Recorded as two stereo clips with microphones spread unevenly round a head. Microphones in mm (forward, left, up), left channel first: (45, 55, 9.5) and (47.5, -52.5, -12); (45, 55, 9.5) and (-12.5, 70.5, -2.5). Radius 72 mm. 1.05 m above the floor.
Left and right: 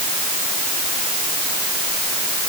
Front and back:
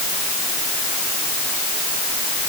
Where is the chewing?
No chewing in this recording.